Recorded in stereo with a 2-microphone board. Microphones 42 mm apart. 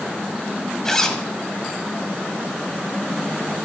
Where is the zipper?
15° left (ahead or behind), 0.9 m.